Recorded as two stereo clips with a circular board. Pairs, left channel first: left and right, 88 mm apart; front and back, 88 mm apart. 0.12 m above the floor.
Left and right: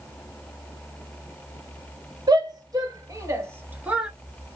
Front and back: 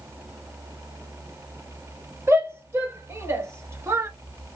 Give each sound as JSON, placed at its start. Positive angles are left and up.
{"t": 2.3, "sound": "a shout", "azimuth_deg": -120, "distance_m": 2.5}